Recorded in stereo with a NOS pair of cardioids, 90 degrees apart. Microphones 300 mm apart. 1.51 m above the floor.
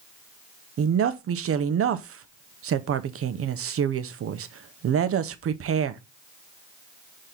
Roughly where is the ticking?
No ticking in this recording.